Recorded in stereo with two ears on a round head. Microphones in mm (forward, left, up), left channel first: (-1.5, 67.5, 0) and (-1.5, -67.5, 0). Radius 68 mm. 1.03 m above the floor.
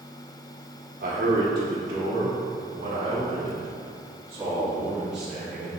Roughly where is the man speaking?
Right.